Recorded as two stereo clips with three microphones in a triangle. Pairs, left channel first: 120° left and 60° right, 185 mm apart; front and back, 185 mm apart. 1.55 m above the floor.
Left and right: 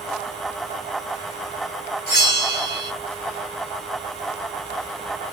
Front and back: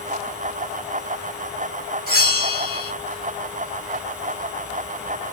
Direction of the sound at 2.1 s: 150° left.